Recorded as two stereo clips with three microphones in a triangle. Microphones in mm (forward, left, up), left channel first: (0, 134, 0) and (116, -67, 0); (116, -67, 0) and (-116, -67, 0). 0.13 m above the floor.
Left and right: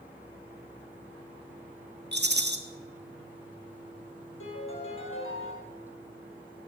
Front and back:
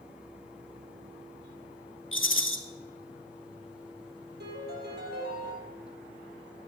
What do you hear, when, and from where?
2.1 s a rattle: 20° right, 1.4 m
4.4 s a piano: 140° left, 3.5 m